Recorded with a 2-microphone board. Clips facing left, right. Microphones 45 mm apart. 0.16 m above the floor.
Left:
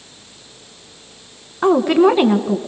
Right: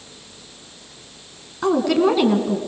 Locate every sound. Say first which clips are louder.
1.6 s a woman speaking: left 5 dB; 25° left (ahead or behind), 1.3 m